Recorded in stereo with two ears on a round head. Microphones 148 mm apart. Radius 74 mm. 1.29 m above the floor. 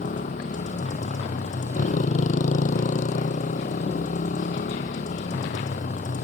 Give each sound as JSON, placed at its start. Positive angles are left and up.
{"t": 0.0, "sound": "a motorcycle", "side_deg": 45}